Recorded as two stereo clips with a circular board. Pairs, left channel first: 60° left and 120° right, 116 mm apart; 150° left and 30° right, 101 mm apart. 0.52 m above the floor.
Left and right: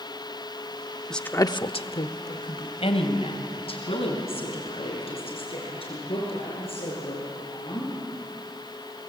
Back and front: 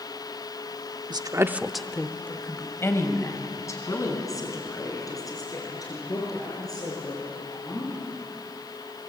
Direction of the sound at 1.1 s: 25° right.